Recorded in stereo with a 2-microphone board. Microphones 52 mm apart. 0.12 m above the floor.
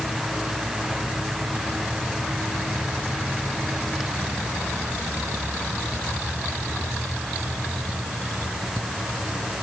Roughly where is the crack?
I don't hear a crack.